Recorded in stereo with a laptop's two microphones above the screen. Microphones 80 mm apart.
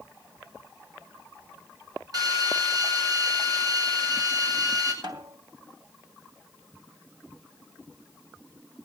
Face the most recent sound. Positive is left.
turn(degrees=-65)  # may be behind; listen again after turning